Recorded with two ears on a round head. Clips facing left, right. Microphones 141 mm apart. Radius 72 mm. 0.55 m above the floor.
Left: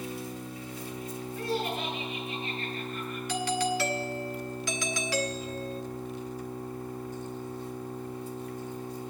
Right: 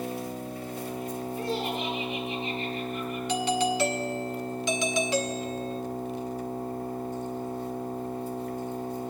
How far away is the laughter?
About 7 m.